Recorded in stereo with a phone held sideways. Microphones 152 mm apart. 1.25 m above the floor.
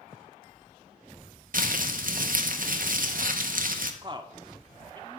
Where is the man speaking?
30° right (ahead or behind), 0.6 m.